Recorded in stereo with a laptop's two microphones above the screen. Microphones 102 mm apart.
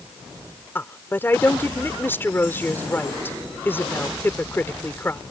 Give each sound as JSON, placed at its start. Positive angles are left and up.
{"t": 0.8, "sound": "a woman speaking", "side_deg": 20}